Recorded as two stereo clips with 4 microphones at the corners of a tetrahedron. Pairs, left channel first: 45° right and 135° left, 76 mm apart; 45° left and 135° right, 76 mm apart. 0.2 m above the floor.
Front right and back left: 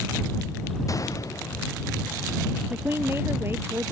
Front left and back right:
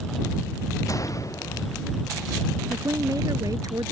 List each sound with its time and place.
0.9 s a gunshot: straight ahead
2.7 s a woman speaking: 170° right